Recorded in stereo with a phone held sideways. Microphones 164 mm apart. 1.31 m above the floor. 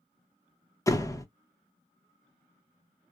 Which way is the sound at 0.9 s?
20° left (ahead or behind).